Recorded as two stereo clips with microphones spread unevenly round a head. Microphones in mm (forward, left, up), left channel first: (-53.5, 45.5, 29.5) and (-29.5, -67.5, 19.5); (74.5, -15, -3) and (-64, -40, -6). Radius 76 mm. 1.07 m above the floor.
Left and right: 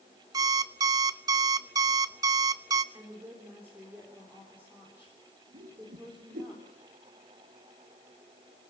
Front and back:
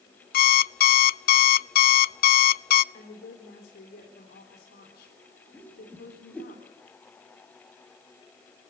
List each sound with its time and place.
0.3 s an alarm clock: 10° right, 0.5 m
2.9 s a woman speaking: straight ahead, 4 m
5.5 s a whoosh: 70° right, 5 m